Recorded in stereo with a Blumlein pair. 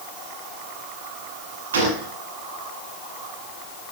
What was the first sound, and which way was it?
A gunshot, 65° right.